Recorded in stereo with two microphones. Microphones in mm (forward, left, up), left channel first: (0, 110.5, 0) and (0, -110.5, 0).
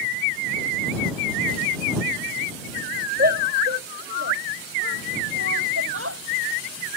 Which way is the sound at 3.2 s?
45° right (ahead or behind).